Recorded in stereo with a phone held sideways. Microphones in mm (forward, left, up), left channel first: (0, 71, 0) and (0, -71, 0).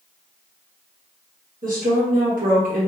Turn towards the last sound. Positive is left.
turn(degrees=-75)  # may be behind; listen again after turning